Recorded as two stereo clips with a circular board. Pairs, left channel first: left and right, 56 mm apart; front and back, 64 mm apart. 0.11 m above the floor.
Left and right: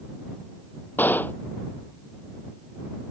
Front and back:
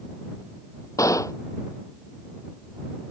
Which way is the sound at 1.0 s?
35° left.